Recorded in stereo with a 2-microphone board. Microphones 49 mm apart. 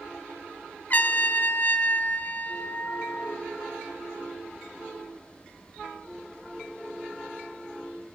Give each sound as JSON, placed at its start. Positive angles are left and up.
{"t": 0.9, "sound": "a trumpet", "side_deg": 40, "distance_m": 1.1}